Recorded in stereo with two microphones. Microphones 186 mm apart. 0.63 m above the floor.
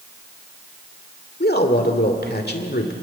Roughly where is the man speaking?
Left.